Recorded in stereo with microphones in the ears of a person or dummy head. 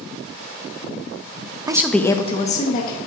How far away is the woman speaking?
About 0.5 m.